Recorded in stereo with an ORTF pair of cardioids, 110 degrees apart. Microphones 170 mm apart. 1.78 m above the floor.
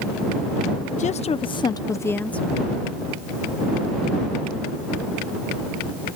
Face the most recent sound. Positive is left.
turn(degrees=0)